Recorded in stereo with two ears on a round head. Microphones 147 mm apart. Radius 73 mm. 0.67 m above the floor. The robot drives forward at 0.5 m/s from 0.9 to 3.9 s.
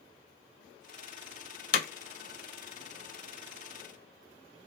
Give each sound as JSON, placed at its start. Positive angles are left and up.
{"t": 1.7, "sound": "hammering", "side_deg": 55, "distance_m": 0.9}